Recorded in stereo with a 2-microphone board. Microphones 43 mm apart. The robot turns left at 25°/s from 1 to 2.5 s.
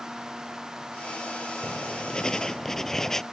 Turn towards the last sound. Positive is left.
turn(degrees=10)  # may be behind; listen again after turning